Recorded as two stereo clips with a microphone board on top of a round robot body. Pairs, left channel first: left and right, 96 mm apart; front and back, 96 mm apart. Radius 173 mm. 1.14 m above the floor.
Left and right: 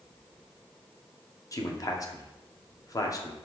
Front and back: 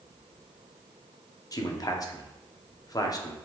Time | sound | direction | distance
1.5 | a man speaking | 45° left | 0.8 m